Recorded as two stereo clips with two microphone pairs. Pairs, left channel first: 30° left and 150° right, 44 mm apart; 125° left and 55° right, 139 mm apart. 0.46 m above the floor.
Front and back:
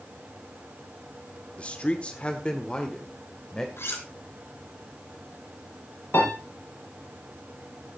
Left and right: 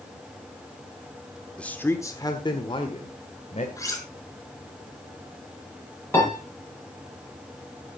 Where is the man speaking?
45° left, 1.2 m; by 3.7 s 100° left, 2 m.